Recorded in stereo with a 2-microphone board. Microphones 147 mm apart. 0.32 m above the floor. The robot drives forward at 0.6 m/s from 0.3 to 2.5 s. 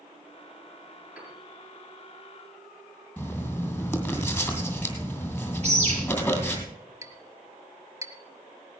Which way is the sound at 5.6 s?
45° right (ahead or behind).